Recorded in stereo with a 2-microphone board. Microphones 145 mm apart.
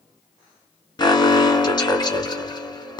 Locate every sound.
1.0 s an alarm: 30° left (ahead or behind), 1.5 m